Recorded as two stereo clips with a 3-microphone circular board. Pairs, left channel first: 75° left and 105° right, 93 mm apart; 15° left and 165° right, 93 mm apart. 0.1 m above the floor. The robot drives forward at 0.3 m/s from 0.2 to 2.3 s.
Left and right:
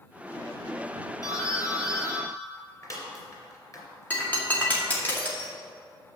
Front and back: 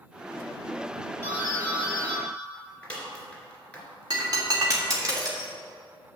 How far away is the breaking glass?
About 3 m.